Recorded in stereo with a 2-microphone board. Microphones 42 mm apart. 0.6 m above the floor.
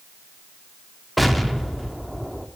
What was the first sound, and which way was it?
An explosion, centre (ahead or behind).